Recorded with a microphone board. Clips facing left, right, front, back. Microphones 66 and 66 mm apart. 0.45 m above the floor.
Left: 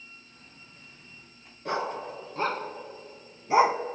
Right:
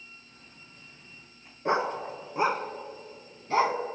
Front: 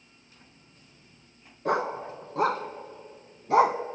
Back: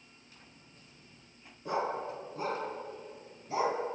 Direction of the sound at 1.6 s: 25° right.